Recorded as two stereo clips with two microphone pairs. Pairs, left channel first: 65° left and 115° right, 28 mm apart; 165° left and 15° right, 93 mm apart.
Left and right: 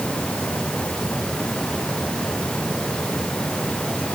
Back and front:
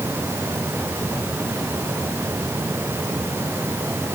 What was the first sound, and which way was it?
Only background noise.